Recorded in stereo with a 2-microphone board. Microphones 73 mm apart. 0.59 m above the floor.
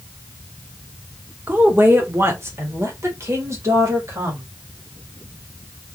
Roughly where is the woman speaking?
Right.